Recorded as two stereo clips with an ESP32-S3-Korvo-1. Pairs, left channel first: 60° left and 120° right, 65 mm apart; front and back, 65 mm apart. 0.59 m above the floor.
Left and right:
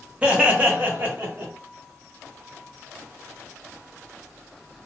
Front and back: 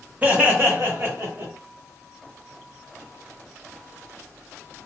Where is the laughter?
160° right, 1.0 m; by 1.5 s 165° right, 1.6 m.